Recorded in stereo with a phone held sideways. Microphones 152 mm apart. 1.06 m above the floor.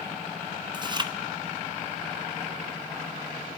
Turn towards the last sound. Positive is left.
turn(degrees=-30)  # may be behind; listen again after turning